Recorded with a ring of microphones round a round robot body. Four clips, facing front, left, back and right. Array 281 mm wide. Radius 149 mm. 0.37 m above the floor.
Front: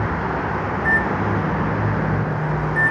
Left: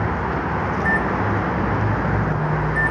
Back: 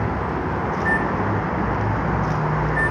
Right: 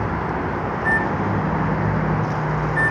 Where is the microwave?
40° left, 0.7 m.